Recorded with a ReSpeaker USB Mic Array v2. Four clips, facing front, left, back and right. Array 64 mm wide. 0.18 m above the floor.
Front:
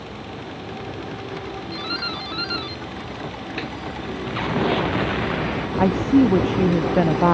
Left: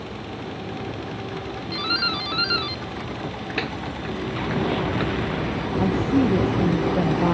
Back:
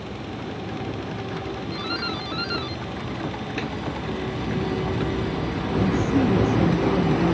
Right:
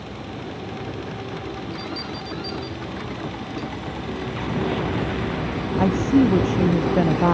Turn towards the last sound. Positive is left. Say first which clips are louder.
# right 3 dB, front 6 dB
turn(degrees=-15)